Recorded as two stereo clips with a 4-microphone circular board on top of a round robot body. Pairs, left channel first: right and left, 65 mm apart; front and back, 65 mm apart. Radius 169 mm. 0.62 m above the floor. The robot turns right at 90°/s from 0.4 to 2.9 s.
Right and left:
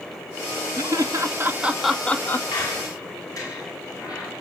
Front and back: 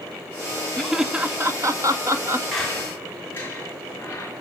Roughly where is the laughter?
Left.